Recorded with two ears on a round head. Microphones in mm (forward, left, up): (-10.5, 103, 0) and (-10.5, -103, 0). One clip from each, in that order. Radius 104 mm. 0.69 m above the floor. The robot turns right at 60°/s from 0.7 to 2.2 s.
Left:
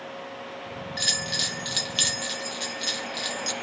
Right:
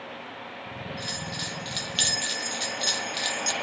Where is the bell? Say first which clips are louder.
Left 9 dB; 115° left, 1.0 m; by 3.5 s 175° right, 1.0 m.